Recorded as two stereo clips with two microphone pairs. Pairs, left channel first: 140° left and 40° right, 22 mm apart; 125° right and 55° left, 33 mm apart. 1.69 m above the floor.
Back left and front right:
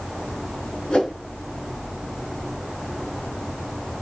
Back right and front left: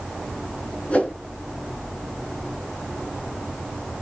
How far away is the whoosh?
About 3.5 m.